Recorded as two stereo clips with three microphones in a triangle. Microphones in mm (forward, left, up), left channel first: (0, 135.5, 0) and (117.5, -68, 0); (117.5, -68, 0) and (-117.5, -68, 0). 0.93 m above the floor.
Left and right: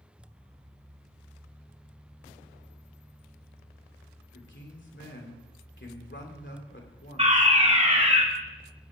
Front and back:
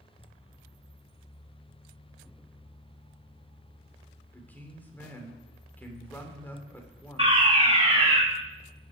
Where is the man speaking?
80° left, 3 m.